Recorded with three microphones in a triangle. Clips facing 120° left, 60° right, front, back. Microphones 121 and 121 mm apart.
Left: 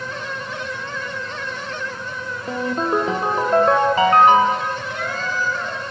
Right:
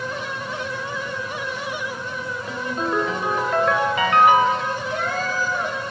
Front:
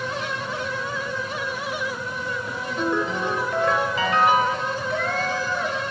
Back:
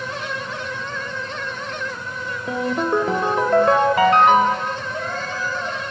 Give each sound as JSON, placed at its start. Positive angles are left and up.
{"t": 2.5, "sound": "a ringtone", "azimuth_deg": 170, "distance_m": 1.1}
{"t": 4.9, "sound": "a cat meowing", "azimuth_deg": -10, "distance_m": 1.8}